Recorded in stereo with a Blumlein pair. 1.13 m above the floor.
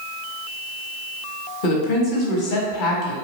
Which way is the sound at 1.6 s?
45° left.